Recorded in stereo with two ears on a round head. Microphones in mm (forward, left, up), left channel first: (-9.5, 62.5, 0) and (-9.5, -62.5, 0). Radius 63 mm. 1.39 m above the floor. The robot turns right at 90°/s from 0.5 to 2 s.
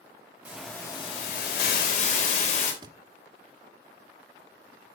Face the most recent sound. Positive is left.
turn(degrees=-30)  # may be behind; listen again after turning